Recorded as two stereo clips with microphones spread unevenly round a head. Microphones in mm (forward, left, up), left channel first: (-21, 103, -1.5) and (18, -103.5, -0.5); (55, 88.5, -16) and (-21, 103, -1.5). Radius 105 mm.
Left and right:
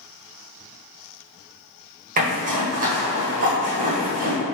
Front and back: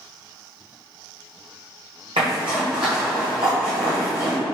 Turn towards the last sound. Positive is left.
turn(degrees=-135)